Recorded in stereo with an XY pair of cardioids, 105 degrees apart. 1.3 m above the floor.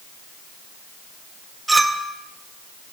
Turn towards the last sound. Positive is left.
turn(degrees=-20)